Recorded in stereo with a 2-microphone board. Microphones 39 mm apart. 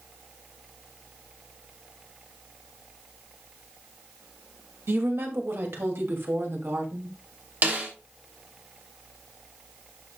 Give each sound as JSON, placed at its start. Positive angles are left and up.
{"t": 4.9, "sound": "a woman speaking", "side_deg": -80, "distance_m": 2.0}
{"t": 7.6, "sound": "a snare drum", "side_deg": -50, "distance_m": 3.0}